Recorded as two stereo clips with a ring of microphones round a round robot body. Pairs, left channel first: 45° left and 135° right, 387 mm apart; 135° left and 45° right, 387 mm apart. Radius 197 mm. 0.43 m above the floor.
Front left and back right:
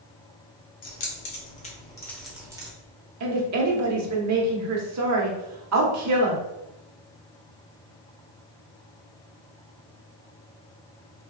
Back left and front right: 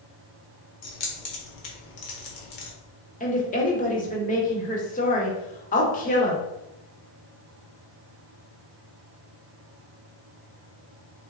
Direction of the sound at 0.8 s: 90° left.